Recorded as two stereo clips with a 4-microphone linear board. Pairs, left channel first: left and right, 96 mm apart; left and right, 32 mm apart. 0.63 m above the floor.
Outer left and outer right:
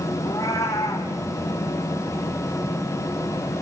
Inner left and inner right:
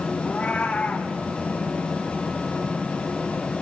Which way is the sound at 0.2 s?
30° left (ahead or behind).